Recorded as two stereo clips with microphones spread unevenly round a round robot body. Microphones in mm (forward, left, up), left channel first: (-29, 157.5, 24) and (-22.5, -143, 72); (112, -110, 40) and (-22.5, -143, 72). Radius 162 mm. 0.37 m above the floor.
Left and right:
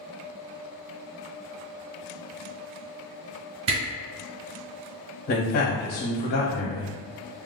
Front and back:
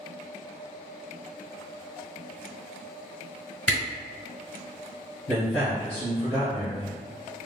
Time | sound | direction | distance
3.7 | a camera shutter | 75° right | 1.7 m
5.3 | a man speaking | 85° left | 1.6 m